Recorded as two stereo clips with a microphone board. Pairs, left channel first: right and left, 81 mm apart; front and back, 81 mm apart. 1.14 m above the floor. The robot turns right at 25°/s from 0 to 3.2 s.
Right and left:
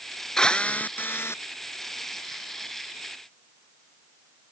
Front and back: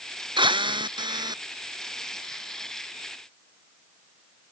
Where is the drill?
170° right; by 1.4 s 145° right.